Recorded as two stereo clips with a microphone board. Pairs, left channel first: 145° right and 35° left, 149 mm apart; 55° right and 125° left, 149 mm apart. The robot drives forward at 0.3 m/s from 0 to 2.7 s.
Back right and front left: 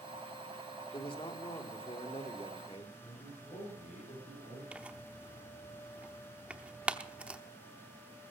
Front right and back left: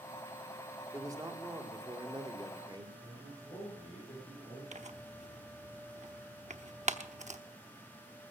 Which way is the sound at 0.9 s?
Straight behind.